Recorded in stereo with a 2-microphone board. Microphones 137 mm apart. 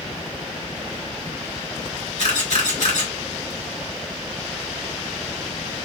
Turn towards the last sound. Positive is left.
turn(degrees=70)  # may be behind; listen again after turning